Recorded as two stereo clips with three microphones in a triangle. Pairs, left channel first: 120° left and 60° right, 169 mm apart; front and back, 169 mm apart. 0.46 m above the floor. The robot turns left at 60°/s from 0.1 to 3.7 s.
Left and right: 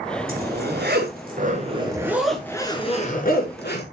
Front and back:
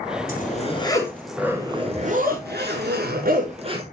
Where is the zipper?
30° right, 6 m; by 3.8 s 125° left, 6 m.